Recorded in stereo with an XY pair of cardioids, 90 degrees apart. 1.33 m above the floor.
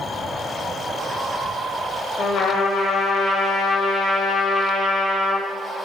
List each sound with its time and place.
2.2 s a trumpet: 65° left, 1.4 m